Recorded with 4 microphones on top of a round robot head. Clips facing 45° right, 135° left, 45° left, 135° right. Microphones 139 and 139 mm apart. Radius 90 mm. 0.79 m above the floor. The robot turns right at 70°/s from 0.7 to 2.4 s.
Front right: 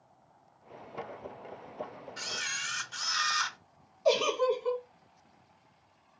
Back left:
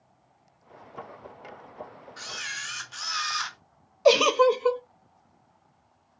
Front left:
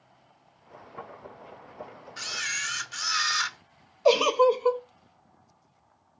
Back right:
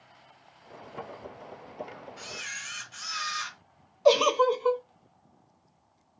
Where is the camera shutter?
30° left, 0.6 m; by 3.6 s 45° left, 0.6 m.